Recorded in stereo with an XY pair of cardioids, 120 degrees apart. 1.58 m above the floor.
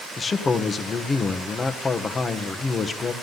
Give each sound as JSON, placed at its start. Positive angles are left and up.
{"t": 0.2, "sound": "a man speaking", "azimuth_deg": 25, "distance_m": 1.2}